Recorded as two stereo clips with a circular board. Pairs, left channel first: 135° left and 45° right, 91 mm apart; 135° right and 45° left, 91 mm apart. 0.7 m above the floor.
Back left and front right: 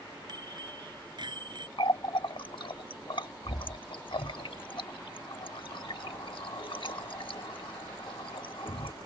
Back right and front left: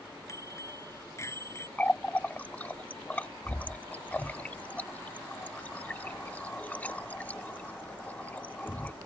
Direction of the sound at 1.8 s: 155° left.